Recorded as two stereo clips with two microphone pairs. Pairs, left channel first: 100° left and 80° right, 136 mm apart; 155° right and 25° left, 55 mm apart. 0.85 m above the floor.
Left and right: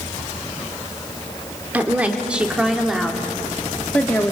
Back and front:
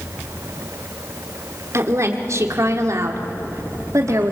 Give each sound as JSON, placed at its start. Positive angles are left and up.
{"t": 1.7, "sound": "a woman speaking", "azimuth_deg": 0, "distance_m": 2.5}